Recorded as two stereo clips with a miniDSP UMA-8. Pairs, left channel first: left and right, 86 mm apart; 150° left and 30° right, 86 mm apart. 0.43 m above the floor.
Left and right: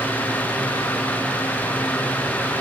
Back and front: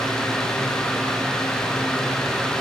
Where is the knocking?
No knocking in this recording.